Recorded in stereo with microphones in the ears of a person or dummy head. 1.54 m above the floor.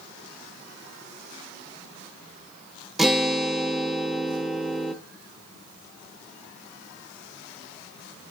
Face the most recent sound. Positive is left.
turn(degrees=0)  # may be behind; listen again after turning